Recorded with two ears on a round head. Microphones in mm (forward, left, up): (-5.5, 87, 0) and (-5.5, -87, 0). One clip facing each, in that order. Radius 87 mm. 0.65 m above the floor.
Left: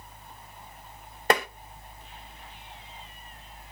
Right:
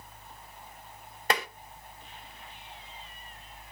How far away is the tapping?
About 0.7 m.